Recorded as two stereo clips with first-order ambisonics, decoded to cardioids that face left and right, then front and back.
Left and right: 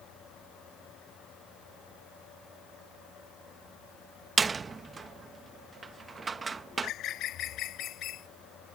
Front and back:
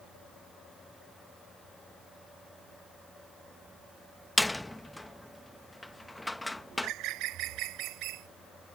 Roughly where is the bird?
Behind left.